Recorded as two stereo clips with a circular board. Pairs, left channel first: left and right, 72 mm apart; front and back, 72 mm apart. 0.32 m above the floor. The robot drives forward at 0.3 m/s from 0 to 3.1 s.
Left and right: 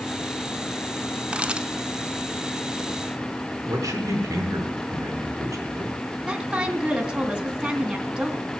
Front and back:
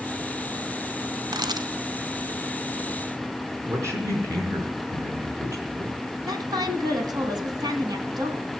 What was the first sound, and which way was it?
A camera shutter, 165° right.